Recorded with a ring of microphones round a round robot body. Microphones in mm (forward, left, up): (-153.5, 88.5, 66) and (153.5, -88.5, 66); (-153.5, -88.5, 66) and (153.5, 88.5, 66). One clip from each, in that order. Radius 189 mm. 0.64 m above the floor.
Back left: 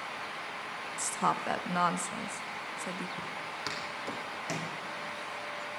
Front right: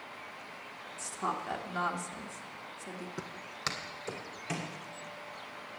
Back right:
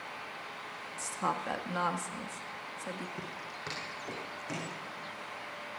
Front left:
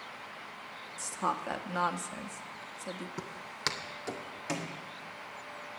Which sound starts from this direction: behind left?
A woman speaking, at 1.0 s.